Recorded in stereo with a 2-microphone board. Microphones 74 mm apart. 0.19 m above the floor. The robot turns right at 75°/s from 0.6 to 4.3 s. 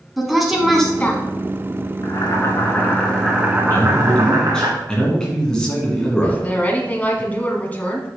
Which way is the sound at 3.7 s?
120° left.